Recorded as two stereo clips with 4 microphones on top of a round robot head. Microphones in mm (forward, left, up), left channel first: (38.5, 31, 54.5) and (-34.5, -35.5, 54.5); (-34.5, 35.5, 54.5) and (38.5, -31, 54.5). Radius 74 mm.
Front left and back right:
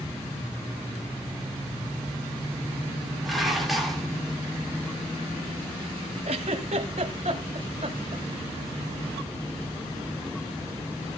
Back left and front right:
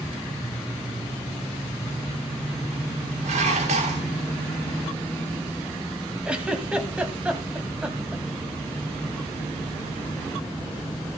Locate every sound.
3.2 s dishes clattering: 50° right, 3 m
6.2 s a giggle: 120° right, 1.3 m